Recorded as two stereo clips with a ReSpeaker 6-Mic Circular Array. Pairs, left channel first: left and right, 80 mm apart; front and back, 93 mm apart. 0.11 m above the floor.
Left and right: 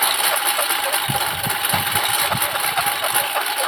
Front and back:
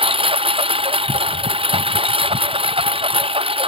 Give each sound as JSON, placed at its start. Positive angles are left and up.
{"t": 0.0, "sound": "a lawn mower", "azimuth_deg": 180}